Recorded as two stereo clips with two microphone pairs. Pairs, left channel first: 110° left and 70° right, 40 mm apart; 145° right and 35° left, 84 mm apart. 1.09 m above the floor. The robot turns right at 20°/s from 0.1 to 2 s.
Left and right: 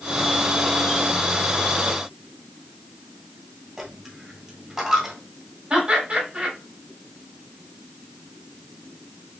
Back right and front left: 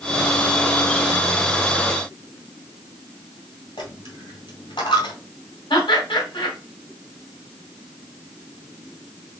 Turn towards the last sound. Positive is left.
turn(degrees=-130)